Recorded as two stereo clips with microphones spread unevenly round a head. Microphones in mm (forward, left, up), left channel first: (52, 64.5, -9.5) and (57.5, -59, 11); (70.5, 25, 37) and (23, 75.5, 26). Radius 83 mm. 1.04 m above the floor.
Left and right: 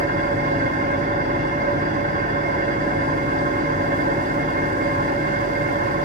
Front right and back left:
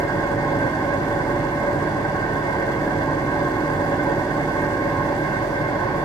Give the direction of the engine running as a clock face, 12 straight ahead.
4 o'clock.